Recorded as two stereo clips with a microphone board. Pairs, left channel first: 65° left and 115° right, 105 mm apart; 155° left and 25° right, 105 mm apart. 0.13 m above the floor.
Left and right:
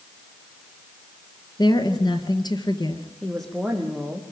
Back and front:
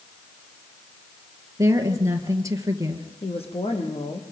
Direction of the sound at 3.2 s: 155° left.